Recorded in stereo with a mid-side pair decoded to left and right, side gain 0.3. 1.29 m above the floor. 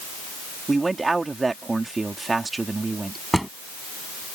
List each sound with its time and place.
0.7 s a man speaking: 35° right
3.3 s a drawer: 10° right